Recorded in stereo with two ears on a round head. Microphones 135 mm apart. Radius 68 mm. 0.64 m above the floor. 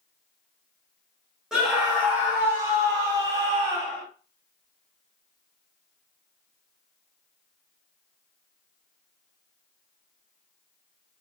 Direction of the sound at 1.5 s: 5° right (ahead or behind).